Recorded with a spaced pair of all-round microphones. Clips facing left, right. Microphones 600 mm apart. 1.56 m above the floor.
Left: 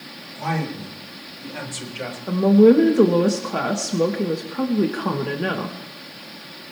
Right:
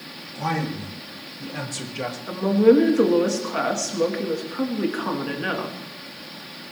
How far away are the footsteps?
No footsteps in this recording.